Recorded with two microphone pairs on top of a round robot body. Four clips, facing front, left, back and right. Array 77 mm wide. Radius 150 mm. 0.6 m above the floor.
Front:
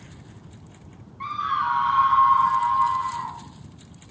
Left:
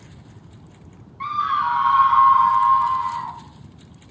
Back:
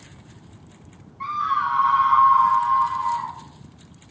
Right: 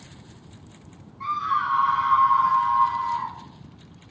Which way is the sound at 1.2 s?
95° left.